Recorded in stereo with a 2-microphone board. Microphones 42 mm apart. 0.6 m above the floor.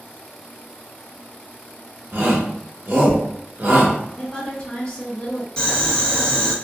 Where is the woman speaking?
15° left (ahead or behind), 0.7 m.